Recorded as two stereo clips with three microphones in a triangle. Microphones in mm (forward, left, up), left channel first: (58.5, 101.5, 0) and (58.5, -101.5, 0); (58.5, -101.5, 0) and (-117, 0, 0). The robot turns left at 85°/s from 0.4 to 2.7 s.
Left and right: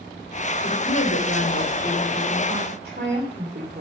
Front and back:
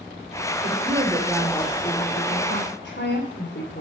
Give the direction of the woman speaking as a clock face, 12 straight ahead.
8 o'clock.